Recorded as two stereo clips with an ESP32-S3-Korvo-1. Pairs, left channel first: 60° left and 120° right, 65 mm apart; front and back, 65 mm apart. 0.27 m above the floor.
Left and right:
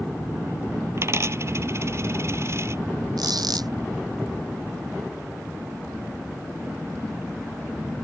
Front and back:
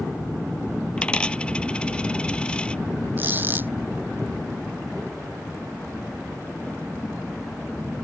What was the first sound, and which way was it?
A dropped coin, 75° right.